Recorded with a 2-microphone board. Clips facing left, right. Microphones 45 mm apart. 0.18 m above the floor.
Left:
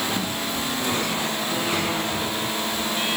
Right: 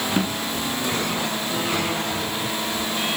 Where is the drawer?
35° right (ahead or behind), 9 m.